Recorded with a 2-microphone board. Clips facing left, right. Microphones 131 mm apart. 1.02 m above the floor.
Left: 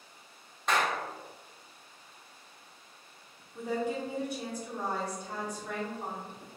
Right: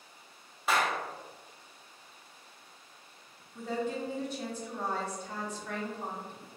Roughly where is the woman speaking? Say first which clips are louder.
Left 1 dB; centre.